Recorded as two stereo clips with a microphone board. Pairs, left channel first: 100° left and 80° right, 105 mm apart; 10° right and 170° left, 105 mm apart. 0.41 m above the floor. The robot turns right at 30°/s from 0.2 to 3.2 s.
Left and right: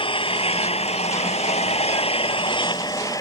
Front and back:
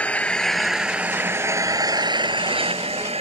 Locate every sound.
0.0 s an engine running: 65° left; by 3.2 s 155° left